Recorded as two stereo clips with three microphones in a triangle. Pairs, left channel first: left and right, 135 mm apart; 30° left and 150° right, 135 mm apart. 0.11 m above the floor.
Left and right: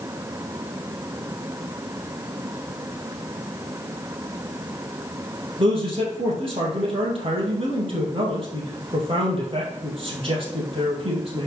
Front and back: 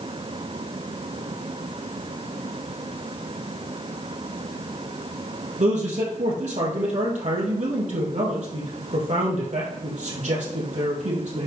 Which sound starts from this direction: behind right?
A man speaking, at 5.6 s.